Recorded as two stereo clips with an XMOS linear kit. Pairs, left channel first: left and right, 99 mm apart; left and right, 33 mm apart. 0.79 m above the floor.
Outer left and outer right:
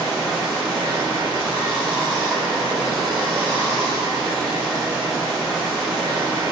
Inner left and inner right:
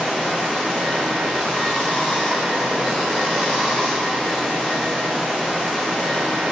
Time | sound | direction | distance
0.0 | running water | 15° right (ahead or behind) | 1.5 m